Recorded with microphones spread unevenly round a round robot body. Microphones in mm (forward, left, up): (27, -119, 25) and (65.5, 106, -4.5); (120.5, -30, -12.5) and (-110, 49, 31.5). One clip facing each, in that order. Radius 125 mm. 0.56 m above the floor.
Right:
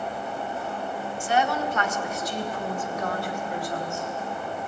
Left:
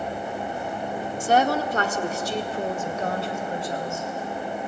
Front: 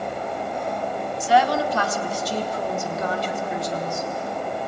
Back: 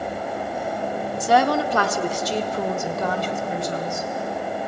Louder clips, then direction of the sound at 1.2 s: Left 4 dB, back 1 dB; 110° left.